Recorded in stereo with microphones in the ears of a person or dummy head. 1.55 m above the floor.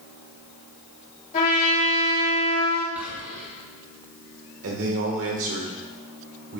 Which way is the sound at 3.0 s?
10° right (ahead or behind).